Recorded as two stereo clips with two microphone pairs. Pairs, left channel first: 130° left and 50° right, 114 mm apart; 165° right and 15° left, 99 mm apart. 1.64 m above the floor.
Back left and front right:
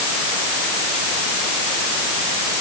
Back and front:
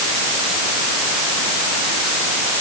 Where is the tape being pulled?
No tape being pulled in this recording.